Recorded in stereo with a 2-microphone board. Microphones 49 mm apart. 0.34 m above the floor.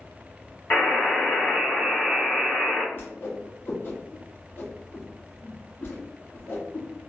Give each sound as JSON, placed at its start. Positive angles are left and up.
{"t": 0.7, "sound": "a buzzer", "side_deg": 40, "distance_m": 1.9}
{"t": 2.9, "sound": "a whoosh", "side_deg": 45, "distance_m": 1.9}